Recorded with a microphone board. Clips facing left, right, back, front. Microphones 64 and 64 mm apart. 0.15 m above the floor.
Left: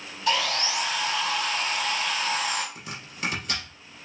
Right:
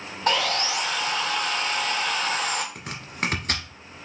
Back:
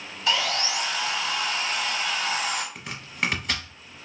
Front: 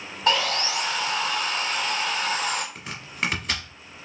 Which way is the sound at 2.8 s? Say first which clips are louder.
Right 5 dB, even; 90° right.